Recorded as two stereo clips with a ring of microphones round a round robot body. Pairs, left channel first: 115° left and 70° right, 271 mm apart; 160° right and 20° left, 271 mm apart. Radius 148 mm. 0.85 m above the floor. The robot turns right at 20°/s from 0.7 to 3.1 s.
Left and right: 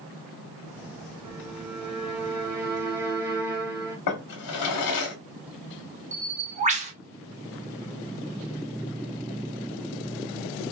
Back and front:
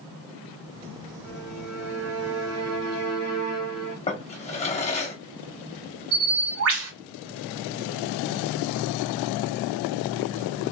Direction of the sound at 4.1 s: 135° left.